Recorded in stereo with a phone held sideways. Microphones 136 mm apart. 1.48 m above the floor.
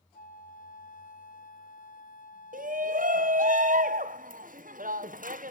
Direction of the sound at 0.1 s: 70° left (ahead or behind).